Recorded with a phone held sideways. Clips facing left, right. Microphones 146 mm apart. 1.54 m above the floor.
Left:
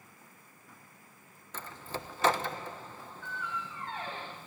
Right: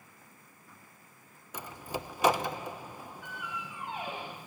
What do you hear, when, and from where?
1.5 s a door slam: 15° right (ahead or behind), 1.0 m